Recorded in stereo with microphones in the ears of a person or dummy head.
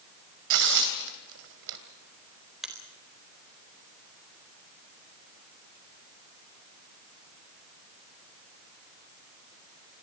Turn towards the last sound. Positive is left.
turn(degrees=-5)  # may be behind; listen again after turning